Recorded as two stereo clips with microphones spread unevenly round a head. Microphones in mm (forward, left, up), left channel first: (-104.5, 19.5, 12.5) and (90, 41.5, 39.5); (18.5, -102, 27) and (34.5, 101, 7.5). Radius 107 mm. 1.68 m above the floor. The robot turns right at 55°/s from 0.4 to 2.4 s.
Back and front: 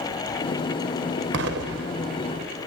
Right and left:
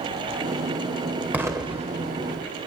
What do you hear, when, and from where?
1.3 s an explosion: straight ahead, 1.0 m; by 2.5 s 60° left, 1.0 m